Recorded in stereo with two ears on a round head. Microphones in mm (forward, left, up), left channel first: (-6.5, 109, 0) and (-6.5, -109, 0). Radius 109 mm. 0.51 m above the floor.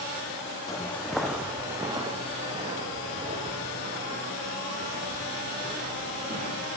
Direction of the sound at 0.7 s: 15° left (ahead or behind).